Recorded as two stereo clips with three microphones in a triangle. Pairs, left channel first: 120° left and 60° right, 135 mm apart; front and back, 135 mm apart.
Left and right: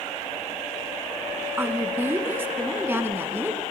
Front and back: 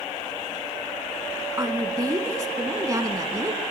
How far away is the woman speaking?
About 2 m.